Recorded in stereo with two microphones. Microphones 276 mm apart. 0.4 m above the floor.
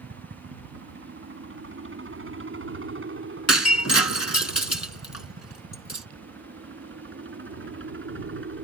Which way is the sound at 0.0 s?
45° right (ahead or behind).